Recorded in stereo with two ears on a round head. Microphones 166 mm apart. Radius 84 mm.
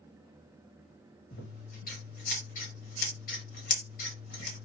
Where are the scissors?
50° left (ahead or behind), 2.0 m.